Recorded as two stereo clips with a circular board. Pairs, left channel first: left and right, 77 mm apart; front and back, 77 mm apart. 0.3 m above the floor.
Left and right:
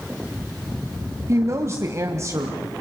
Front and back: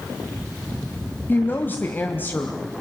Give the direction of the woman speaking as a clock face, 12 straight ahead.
2 o'clock.